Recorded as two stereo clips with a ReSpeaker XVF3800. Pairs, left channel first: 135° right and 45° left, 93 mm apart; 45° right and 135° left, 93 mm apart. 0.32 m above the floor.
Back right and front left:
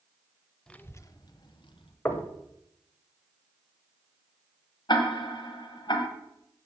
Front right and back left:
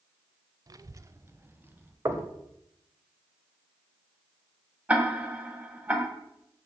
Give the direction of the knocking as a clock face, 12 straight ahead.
6 o'clock.